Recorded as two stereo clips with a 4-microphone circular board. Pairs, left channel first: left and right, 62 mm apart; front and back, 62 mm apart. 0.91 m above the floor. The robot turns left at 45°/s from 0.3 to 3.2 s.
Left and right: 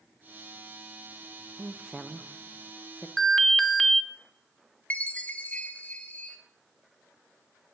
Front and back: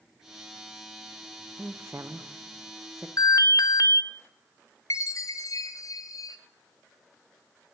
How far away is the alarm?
About 0.8 m.